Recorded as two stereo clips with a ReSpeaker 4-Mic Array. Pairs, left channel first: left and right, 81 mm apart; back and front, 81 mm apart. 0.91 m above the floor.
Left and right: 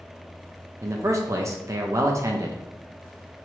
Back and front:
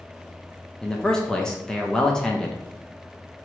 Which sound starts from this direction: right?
A man speaking, at 0.8 s.